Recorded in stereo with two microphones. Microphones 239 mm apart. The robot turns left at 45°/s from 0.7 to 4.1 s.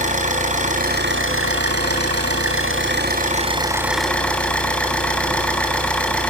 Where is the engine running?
30° right, 3.5 m; by 6.3 s 175° left, 3.5 m.